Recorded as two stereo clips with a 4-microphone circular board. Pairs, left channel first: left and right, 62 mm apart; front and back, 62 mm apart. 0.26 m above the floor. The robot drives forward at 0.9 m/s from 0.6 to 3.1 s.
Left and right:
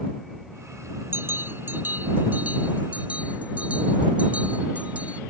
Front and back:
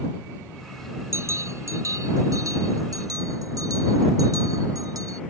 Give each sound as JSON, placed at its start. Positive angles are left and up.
{"t": 1.1, "sound": "a bell", "azimuth_deg": -140}